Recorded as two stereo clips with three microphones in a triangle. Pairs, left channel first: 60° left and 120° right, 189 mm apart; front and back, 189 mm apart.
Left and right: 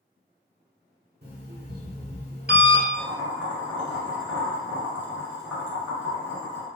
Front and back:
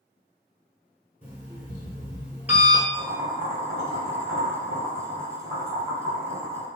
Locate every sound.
1.2 s an alarm clock: 100° right, 1.2 m
2.9 s boiling: 40° right, 1.8 m